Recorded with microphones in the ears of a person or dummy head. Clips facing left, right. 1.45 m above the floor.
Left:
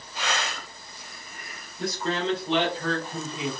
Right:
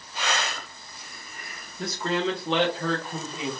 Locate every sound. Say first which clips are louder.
1.8 s a man speaking: right 1 dB; 55° right (ahead or behind), 1.4 m; by 3.5 s 40° right (ahead or behind), 1.2 m